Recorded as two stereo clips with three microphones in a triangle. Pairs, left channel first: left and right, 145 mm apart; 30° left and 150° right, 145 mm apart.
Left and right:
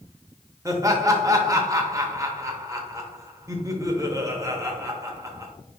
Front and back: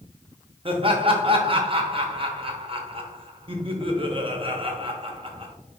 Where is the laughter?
145° right, 0.8 m.